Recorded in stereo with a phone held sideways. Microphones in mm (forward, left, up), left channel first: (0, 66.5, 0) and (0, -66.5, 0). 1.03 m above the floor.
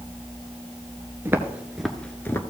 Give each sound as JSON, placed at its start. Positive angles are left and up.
{"t": 1.2, "sound": "footsteps", "side_deg": -20, "distance_m": 1.1}